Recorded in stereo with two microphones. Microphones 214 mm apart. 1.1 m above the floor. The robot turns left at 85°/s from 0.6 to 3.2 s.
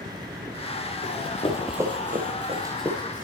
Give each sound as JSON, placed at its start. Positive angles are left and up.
{"t": 1.0, "sound": "running footsteps", "side_deg": 60, "distance_m": 2.0}